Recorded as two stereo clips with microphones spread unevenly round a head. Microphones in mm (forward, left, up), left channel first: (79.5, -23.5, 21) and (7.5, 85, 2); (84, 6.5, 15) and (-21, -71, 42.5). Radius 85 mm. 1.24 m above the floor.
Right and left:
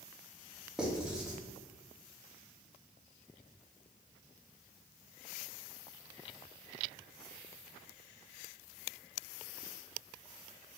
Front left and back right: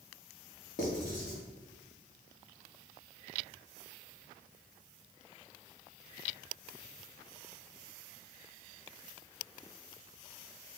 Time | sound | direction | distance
0.8 | writing | 30° left | 0.9 m